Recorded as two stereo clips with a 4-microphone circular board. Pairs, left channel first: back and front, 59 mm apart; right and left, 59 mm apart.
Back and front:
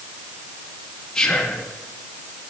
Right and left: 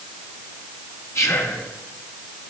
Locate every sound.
1.1 s whispering: 105° right, 1.0 m